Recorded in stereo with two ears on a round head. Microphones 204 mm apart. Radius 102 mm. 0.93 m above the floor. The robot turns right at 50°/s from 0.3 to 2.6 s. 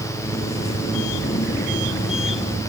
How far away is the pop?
I don't hear a pop.